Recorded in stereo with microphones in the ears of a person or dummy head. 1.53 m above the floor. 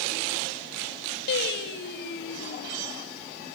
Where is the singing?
70° left (ahead or behind), 2 m.